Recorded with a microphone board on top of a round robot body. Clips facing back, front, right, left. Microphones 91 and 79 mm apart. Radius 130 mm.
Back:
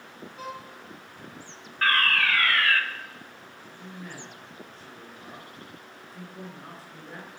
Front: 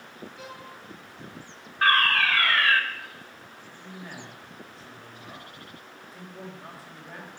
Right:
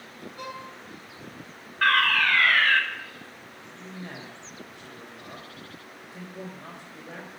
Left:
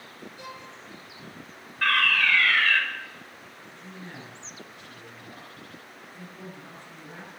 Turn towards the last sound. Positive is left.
turn(degrees=-85)